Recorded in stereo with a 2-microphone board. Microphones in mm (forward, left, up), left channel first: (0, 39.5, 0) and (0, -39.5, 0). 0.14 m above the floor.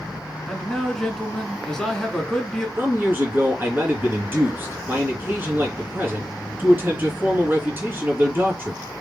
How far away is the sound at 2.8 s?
About 1.9 m.